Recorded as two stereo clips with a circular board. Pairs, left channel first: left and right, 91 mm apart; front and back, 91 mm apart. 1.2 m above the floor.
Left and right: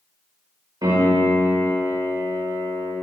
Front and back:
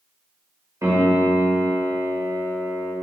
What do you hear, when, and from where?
0.8 s a piano: 125° right, 2 m